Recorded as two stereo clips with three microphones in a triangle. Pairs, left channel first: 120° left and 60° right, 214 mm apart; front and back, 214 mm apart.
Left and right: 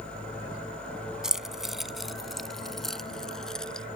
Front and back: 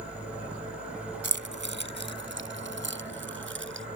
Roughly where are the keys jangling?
Behind right.